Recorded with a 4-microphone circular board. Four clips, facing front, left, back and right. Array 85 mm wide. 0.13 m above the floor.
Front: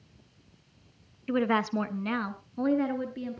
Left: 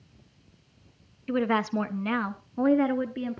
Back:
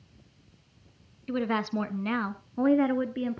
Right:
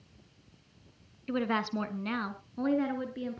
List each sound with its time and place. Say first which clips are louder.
1.3 s a woman speaking: left 5 dB, front 2 dB; 25° left, 1.2 m; by 3.4 s 140° left, 1.5 m